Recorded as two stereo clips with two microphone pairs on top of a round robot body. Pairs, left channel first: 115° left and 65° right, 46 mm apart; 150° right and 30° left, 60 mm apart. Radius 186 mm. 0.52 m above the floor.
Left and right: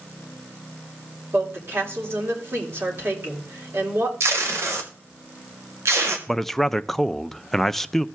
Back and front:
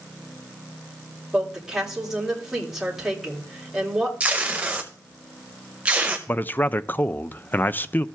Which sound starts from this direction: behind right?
A man speaking, at 6.3 s.